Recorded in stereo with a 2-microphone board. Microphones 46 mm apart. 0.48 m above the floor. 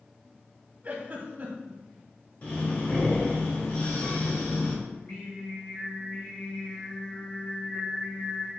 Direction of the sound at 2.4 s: 40° left (ahead or behind).